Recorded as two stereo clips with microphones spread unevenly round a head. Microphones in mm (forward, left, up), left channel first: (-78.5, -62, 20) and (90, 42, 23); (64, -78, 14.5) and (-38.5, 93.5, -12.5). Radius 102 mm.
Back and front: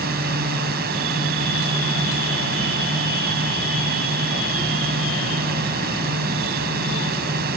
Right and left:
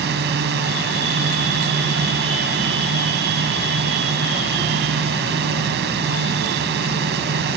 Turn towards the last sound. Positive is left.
turn(degrees=80)